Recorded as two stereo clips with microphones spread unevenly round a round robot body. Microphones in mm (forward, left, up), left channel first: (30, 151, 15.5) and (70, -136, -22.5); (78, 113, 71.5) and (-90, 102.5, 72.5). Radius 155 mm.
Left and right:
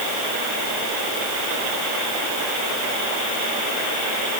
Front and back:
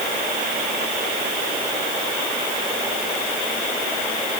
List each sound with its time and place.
Only background noise.